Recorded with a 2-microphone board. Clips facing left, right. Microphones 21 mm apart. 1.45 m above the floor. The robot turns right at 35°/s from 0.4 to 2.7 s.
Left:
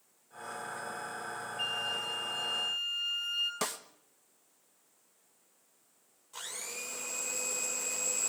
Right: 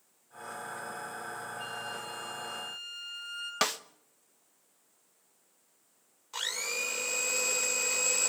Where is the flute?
75° left, 9.5 m; by 3.5 s 115° left, 9.5 m.